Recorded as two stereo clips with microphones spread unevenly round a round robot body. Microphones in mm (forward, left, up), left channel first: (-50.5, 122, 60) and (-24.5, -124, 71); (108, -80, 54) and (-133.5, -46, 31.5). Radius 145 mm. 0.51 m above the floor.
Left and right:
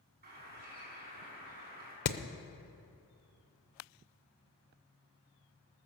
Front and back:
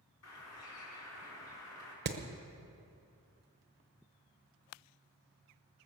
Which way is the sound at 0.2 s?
25° right.